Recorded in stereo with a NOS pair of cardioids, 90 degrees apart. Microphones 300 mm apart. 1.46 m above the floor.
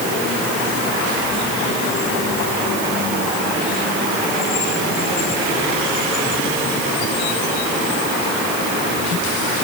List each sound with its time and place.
Only background noise.